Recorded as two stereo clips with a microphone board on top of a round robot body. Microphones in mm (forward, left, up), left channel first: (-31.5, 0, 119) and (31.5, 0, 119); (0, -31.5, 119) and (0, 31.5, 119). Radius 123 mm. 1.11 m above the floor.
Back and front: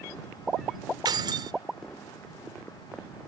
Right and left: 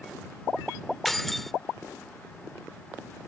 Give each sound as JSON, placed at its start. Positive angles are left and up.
{"t": 1.1, "sound": "keys jangling", "azimuth_deg": -5}